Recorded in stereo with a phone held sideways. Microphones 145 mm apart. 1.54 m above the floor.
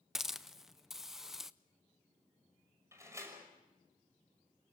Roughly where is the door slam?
Centre.